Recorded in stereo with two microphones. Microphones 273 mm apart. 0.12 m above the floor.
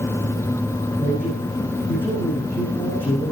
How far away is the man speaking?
About 6 m.